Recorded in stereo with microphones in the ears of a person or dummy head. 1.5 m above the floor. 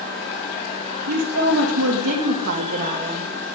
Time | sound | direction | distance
1.1 | a woman speaking | 85° right | 2 m